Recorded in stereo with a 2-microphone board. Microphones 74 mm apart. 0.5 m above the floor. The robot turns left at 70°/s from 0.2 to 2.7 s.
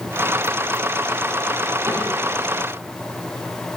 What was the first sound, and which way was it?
A cupboard door, 40° right (ahead or behind).